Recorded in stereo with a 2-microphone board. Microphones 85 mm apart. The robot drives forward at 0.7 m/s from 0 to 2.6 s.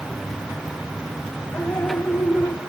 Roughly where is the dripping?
Centre.